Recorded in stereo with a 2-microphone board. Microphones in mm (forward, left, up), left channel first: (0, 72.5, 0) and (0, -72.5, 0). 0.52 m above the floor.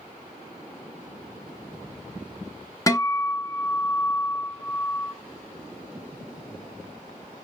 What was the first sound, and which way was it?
A guitar, 20° left (ahead or behind).